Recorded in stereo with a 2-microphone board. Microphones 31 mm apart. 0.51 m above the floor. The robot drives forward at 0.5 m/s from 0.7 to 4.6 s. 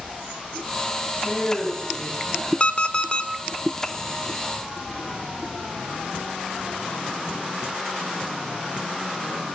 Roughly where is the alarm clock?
Left.